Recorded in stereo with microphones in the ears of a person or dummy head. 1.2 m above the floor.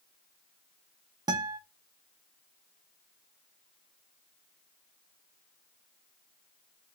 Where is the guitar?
20° right (ahead or behind), 0.5 m.